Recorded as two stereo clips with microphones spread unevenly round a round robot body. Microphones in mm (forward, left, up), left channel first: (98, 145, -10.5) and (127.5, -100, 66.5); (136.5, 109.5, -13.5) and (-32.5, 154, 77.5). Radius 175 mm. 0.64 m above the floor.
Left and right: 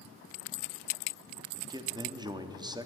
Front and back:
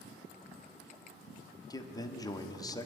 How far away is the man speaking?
About 1.2 m.